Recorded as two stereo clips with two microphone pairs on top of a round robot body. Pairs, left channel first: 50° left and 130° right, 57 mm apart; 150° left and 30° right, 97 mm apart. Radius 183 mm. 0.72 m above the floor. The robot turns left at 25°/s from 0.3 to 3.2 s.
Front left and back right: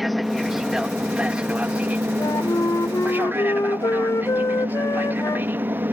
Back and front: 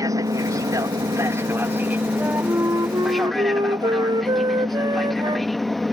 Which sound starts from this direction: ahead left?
A flute, at 2.2 s.